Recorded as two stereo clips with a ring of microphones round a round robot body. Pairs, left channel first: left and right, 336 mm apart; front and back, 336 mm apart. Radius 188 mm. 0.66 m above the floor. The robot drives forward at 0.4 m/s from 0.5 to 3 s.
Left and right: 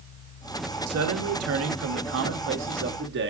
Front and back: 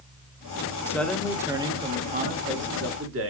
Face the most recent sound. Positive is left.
turn(degrees=-140)